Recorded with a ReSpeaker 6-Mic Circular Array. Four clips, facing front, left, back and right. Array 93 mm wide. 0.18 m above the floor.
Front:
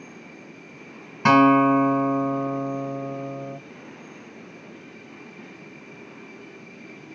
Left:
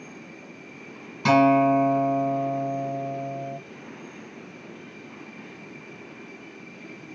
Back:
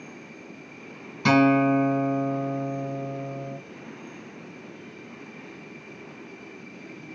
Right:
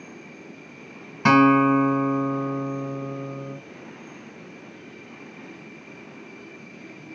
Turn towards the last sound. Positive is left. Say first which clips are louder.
# right 1 dB, front 4 dB
turn(degrees=-40)